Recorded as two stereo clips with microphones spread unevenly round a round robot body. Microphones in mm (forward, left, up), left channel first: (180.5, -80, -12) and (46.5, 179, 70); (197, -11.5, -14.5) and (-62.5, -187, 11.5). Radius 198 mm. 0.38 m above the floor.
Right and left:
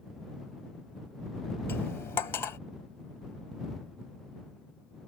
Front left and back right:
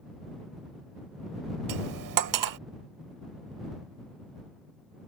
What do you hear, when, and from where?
1.7 s cutlery clinking: 135° right